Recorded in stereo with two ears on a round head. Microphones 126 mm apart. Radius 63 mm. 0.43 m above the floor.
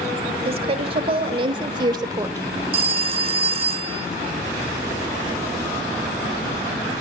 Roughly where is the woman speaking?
Right.